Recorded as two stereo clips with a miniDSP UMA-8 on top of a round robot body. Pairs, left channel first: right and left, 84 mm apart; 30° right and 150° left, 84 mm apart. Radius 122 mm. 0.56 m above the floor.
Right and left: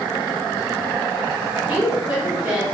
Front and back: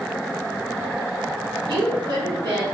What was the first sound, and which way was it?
A woman speaking, 145° left.